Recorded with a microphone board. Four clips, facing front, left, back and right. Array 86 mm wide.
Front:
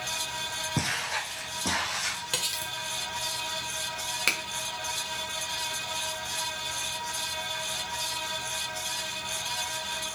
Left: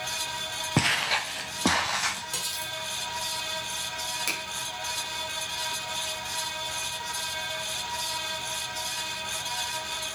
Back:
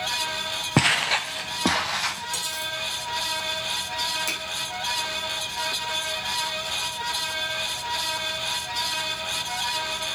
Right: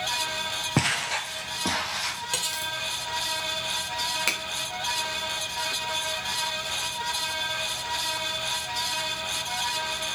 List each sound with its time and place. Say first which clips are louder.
0.8 s footsteps: left 1 dB, back 10 dB; 175° right, 0.5 m; by 2.2 s 140° left, 1.4 m
2.3 s cutlery clinking: right 4 dB, back 3 dB; 35° right, 1.3 m
4.3 s a finger snap: right 3 dB, front 1 dB; 35° right, 1.4 m